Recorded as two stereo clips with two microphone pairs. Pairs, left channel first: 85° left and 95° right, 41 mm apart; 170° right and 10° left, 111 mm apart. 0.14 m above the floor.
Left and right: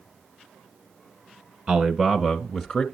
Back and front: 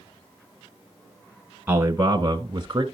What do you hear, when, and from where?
1.7 s a man speaking: 50° right, 1.2 m; by 2.8 s 20° left, 1.3 m